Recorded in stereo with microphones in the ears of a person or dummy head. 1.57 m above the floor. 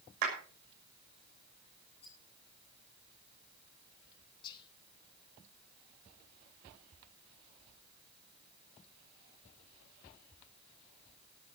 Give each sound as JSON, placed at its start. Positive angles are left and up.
{"t": 0.2, "sound": "a clap", "side_deg": -60, "distance_m": 6.5}
{"t": 2.0, "sound": "a rattle", "side_deg": 35, "distance_m": 9.0}
{"t": 4.4, "sound": "whispering", "side_deg": 30, "distance_m": 2.5}